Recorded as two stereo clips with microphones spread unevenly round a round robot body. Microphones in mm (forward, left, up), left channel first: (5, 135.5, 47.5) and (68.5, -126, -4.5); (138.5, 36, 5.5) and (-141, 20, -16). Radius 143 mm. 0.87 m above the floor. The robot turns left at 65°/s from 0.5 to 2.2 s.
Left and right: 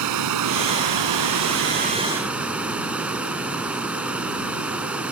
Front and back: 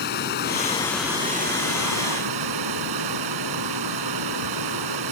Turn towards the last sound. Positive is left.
turn(degrees=-165)